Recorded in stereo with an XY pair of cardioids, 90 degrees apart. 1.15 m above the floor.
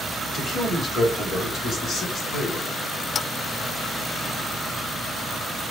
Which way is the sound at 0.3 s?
60° left.